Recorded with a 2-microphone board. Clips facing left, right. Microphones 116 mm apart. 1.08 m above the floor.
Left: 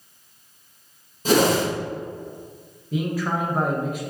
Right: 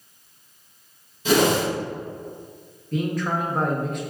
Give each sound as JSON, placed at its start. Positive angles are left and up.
{"t": 1.2, "sound": "a whoosh", "side_deg": 40, "distance_m": 1.3}
{"t": 2.9, "sound": "a man speaking", "side_deg": 5, "distance_m": 0.8}